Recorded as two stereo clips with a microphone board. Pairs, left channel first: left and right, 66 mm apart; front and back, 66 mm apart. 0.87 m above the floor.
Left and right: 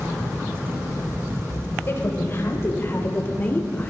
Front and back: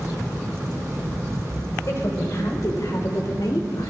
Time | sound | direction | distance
1.9 | a woman speaking | 40° left | 3.5 m